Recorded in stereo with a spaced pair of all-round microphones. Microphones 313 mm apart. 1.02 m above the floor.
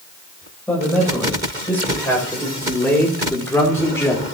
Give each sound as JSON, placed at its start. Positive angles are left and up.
{"t": 0.7, "sound": "a man speaking", "side_deg": 5, "distance_m": 4.5}